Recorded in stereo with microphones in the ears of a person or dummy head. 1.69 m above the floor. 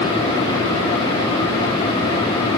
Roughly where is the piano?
I don't hear a piano.